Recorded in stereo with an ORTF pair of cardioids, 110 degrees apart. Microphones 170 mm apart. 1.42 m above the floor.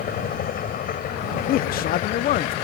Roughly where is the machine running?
Ahead left.